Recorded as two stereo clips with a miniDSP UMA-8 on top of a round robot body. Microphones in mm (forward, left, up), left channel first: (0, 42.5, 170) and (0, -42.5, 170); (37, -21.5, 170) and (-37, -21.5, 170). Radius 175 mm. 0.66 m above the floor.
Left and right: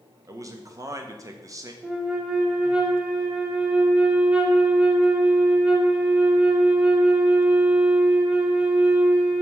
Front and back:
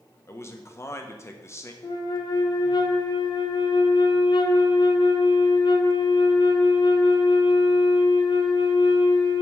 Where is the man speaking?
45° right, 1.1 m.